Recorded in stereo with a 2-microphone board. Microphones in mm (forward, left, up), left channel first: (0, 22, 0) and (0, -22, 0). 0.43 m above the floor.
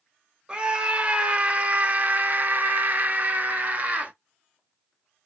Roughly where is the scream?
Right.